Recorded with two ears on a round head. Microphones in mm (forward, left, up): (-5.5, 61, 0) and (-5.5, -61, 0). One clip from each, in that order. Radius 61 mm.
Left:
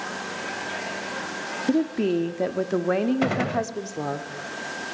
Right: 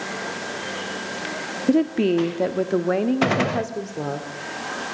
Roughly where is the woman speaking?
Right.